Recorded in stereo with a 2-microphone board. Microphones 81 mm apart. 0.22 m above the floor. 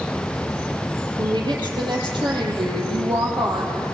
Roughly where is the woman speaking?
Right.